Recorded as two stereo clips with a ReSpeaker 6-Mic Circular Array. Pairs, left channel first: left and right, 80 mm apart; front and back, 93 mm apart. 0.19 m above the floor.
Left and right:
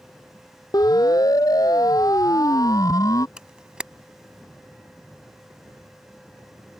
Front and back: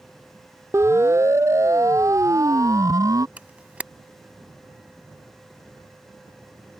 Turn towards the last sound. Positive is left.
turn(degrees=-145)